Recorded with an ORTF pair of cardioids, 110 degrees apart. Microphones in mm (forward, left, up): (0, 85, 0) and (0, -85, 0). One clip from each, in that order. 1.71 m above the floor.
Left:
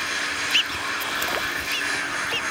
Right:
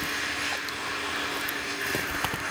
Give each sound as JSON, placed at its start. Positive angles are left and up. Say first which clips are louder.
{"t": 0.0, "sound": "a machine running", "louder": "left 4 dB", "azimuth_deg": 40, "distance_m": 9.5}